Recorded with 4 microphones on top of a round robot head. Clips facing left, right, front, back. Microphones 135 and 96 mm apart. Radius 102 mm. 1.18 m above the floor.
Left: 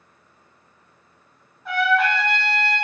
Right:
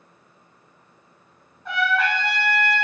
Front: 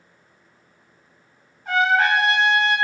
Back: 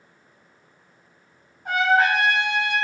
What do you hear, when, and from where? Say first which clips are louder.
1.6 s a trumpet: left 3 dB, even; straight behind, 0.8 m